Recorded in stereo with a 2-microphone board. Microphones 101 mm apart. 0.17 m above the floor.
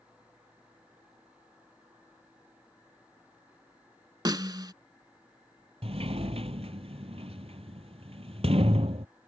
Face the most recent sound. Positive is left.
turn(degrees=-80)